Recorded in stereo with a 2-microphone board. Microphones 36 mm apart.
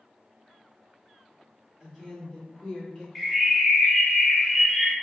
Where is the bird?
5° left (ahead or behind), 0.8 m.